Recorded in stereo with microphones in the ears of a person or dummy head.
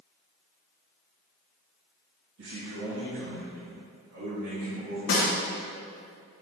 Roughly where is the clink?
No clink in this recording.